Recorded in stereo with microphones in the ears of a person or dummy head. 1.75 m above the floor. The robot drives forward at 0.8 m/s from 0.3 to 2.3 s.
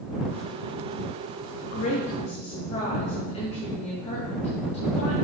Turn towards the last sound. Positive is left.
turn(degrees=35)  # may be behind; listen again after turning